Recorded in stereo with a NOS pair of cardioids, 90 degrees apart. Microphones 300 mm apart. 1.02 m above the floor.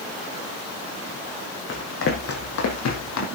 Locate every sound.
1.7 s running footsteps: 40° left, 3.5 m; by 3.3 s 65° left, 3 m